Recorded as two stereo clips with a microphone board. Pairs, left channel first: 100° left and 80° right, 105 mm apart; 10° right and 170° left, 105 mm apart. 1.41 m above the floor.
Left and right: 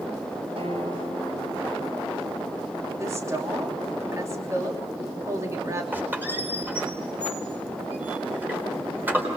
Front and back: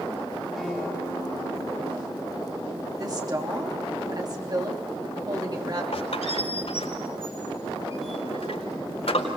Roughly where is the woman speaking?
Behind right.